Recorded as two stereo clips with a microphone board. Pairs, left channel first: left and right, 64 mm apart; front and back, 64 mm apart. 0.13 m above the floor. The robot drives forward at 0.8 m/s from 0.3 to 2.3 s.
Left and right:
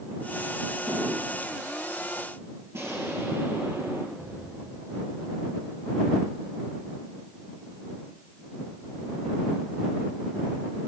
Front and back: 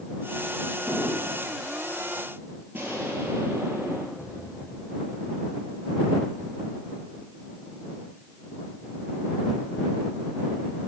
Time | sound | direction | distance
0.9 | a drawer | 85° right | 5.5 m
2.7 | an explosion | 125° right | 3 m
4.2 | an explosion | 105° right | 5.5 m